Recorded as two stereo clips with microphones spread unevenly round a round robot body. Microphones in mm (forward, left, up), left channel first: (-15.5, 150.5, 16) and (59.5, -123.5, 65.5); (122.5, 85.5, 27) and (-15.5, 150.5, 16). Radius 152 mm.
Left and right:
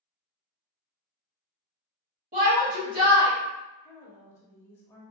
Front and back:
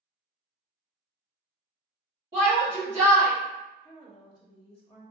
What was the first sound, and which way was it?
A shout, 140° right.